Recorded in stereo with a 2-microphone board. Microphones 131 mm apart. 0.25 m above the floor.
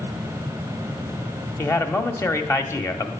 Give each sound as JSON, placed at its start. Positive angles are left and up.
{"t": 1.6, "sound": "a man speaking", "side_deg": 20, "distance_m": 1.0}